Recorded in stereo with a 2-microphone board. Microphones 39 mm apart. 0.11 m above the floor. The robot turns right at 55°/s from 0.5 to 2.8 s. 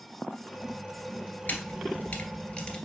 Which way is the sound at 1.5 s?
45° left (ahead or behind).